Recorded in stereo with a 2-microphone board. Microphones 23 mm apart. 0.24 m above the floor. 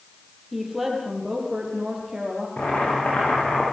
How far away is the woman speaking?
About 7 m.